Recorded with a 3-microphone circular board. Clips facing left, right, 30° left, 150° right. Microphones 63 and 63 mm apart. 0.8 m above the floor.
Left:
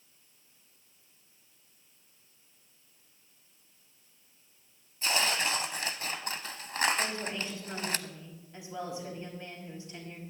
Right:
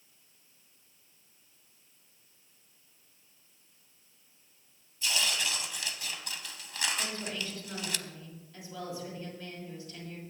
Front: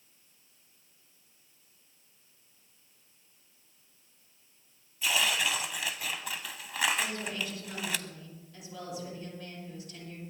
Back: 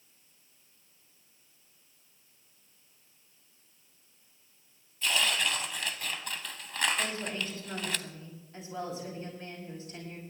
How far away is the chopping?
I don't hear chopping.